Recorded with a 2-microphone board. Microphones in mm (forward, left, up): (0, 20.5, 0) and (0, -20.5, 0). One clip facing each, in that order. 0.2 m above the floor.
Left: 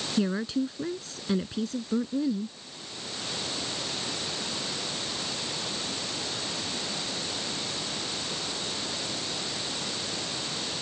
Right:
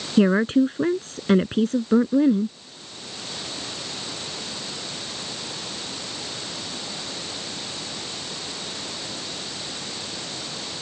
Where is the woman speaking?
45° right (ahead or behind).